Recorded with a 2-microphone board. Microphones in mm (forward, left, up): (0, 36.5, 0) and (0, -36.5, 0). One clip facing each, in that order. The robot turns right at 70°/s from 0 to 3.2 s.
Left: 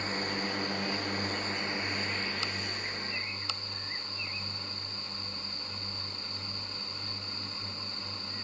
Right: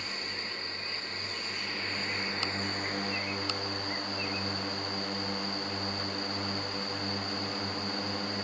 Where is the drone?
35° left; by 8.4 s 100° right.